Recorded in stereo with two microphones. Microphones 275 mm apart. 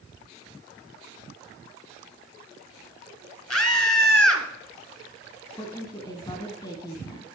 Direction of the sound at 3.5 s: 60° left (ahead or behind).